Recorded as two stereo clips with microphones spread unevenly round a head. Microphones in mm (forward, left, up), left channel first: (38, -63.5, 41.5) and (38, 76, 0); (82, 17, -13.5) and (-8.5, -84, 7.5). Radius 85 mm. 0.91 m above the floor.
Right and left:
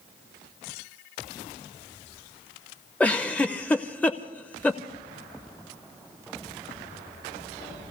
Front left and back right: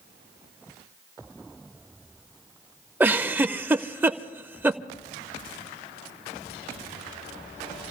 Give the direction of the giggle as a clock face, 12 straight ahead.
3 o'clock.